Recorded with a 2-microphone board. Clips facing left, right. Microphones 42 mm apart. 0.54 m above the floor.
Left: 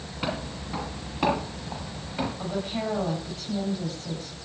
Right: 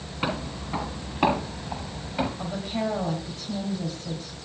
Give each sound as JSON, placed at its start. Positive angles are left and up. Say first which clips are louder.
{"t": 0.2, "sound": "footsteps", "louder": "right 2 dB", "side_deg": -15, "distance_m": 5.0}
{"t": 2.4, "sound": "a woman speaking", "louder": "right 1 dB", "side_deg": 5, "distance_m": 4.5}